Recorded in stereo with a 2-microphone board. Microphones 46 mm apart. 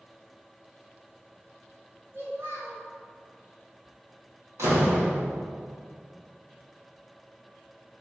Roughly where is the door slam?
Right.